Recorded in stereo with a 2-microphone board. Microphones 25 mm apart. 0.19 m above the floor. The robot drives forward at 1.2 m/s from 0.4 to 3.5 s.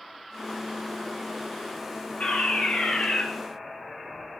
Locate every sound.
2.2 s a fire alarm: 50° left (ahead or behind), 5 m; by 3.2 s 45° left (ahead or behind), 6 m